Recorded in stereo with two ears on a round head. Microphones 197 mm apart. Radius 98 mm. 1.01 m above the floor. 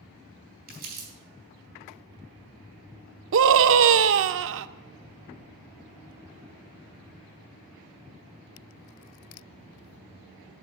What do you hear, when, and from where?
0.7 s crumpling: 45° right (ahead or behind), 4 m
3.3 s a scream: 55° right (ahead or behind), 0.6 m